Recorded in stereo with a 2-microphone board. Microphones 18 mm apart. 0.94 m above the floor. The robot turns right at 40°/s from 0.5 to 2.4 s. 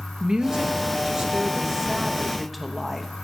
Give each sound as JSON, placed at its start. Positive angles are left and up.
{"t": 0.2, "sound": "a woman speaking", "azimuth_deg": -80, "distance_m": 1.2}